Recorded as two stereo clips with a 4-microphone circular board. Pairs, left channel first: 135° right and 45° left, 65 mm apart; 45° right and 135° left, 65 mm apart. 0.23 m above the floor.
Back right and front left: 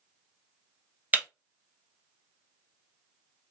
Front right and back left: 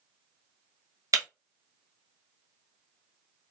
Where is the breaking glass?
105° left, 1.4 m.